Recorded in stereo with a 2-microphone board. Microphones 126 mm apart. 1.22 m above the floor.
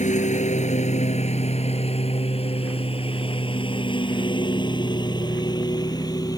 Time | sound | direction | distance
0.0 | a lawn mower | 60° left (ahead or behind) | ?